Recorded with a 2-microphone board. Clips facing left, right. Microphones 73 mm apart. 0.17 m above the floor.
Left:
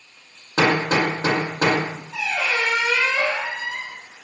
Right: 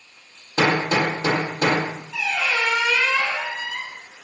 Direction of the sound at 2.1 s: 35° left (ahead or behind).